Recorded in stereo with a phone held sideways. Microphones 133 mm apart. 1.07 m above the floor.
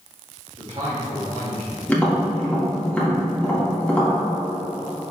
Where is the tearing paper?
I don't hear tearing paper.